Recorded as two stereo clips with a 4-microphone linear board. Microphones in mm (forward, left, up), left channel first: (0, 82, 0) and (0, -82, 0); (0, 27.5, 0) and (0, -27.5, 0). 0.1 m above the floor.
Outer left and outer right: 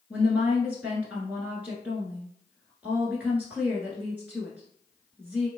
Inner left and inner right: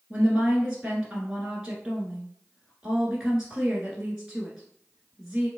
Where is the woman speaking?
10° right (ahead or behind), 1.1 m.